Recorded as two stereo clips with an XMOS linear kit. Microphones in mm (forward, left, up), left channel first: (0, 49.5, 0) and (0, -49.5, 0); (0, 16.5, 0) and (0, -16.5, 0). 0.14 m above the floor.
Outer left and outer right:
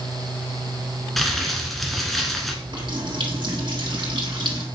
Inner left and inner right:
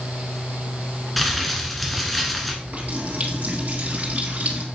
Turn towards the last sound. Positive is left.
turn(degrees=-50)  # may be behind; listen again after turning